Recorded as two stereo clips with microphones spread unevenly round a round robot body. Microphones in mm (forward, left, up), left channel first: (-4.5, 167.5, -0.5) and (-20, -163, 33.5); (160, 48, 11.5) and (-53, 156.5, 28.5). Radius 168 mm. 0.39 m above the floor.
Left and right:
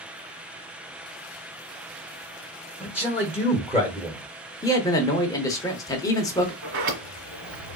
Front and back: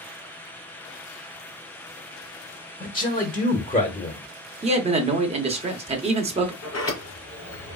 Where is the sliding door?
80° right, 2.5 m.